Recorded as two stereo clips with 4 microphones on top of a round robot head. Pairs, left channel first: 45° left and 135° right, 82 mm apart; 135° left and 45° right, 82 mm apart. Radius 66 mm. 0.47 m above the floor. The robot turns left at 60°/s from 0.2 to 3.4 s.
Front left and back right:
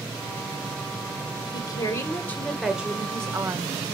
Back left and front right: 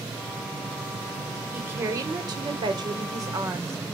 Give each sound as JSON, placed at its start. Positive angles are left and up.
{"t": 1.5, "sound": "a woman speaking", "azimuth_deg": 20, "distance_m": 2.5}